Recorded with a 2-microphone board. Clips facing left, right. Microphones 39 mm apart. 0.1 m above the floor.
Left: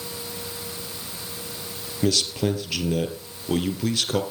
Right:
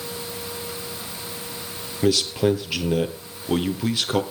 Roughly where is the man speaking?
Centre.